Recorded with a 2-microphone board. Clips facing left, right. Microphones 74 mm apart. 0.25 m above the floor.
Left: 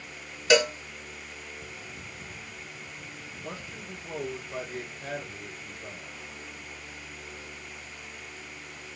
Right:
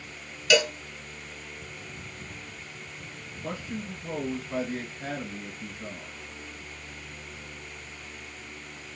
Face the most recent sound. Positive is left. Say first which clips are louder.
# right 7 dB
turn(degrees=-50)  # may be behind; listen again after turning